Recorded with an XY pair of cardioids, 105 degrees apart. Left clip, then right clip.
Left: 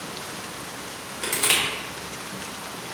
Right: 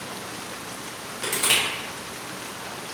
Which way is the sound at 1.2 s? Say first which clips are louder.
Even; 15° left.